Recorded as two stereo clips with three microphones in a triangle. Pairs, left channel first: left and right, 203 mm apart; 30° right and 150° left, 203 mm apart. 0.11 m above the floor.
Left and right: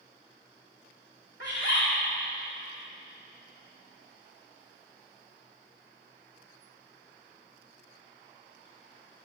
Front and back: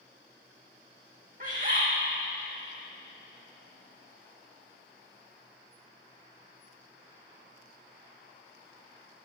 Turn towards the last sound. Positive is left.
turn(degrees=105)